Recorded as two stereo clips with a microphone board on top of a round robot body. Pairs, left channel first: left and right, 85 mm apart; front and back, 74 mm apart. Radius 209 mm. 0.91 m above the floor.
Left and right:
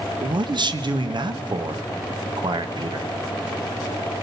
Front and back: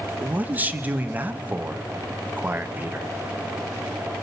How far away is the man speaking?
About 1.4 m.